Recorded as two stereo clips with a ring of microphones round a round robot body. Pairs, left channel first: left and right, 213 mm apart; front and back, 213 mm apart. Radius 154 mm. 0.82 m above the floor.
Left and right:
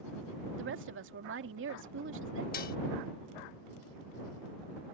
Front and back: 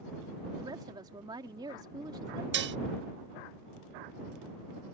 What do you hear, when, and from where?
0.6 s a woman speaking: 105° right
2.5 s dishes clattering: 150° left